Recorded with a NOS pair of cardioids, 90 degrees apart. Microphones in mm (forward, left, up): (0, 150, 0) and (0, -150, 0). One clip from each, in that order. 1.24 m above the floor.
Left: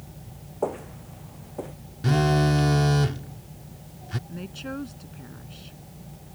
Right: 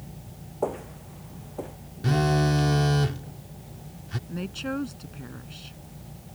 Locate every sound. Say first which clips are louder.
0.6 s footsteps: left 1 dB; 5° left
2.0 s a phone buzzing: left 2 dB; 10° left
4.3 s a woman speaking: right 7 dB; 30° right